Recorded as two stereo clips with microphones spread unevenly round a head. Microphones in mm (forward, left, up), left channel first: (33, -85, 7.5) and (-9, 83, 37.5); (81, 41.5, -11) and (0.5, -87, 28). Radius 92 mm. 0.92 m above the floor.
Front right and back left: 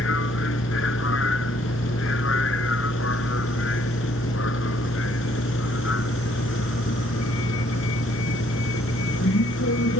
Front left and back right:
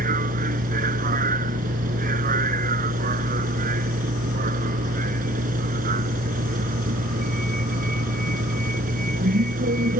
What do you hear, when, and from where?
0.0 s a vehicle: 100° right